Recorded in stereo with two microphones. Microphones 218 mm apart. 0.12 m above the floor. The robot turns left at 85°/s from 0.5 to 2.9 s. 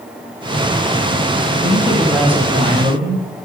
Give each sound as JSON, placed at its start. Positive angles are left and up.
{"t": 1.6, "sound": "a man speaking", "azimuth_deg": 50, "distance_m": 3.0}